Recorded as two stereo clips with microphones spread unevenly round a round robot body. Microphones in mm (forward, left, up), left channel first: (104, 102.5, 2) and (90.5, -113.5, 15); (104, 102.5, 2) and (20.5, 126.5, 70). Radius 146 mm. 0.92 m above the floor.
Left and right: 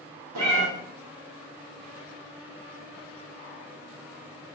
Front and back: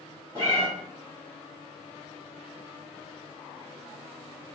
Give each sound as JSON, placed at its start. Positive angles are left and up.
{"t": 0.3, "sound": "a cat meowing", "azimuth_deg": -125, "distance_m": 0.6}